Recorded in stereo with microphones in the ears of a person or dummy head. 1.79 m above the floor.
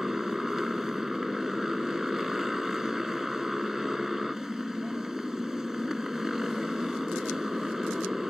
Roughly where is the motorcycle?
Centre.